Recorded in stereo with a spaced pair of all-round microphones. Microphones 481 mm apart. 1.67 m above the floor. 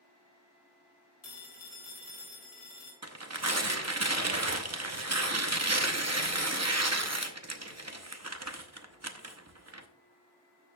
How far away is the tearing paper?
About 0.7 m.